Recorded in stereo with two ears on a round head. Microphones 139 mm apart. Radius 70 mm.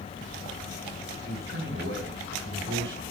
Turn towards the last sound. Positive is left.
turn(degrees=-85)